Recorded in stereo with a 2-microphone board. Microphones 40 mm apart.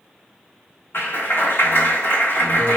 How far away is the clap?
About 1.5 m.